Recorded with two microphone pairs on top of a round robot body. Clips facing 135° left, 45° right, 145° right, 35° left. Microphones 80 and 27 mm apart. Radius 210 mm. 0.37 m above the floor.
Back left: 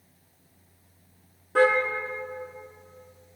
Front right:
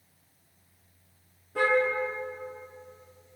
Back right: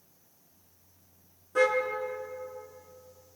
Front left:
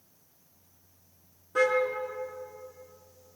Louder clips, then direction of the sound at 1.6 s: Back left 6 dB, even; 120° left.